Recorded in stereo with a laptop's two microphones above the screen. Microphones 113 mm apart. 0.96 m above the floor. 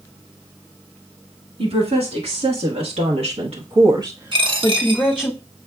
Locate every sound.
1.6 s a woman speaking: 65° right (ahead or behind), 1.9 m; by 5.3 s 15° left (ahead or behind), 1.0 m
4.3 s a dropped coin: 50° right (ahead or behind), 1.3 m